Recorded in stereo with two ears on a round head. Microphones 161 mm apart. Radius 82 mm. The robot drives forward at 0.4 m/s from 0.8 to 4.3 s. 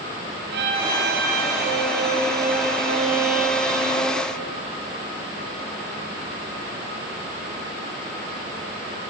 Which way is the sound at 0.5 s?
70° right (ahead or behind).